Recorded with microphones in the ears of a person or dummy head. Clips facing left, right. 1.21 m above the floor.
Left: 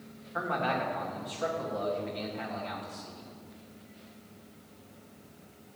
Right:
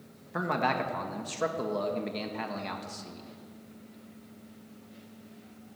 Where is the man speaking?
75° right (ahead or behind), 1.6 m.